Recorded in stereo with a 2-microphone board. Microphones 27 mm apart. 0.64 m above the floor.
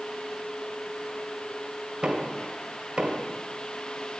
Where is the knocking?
40° right (ahead or behind), 2.5 m.